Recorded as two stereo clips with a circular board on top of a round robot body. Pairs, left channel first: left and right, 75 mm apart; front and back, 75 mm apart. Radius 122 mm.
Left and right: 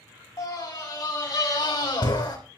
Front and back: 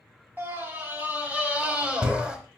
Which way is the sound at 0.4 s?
120° left.